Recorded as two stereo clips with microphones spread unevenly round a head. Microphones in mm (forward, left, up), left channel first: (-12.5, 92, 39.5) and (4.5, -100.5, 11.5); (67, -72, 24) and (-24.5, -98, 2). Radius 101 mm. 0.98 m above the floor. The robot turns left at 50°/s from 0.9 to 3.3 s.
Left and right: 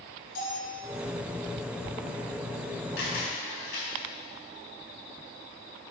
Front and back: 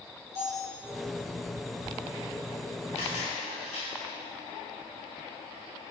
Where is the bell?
140° left, 2.5 m.